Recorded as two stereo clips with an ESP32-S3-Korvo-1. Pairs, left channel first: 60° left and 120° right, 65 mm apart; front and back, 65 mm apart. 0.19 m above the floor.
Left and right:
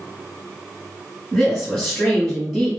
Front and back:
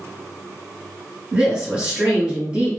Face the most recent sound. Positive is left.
turn(degrees=135)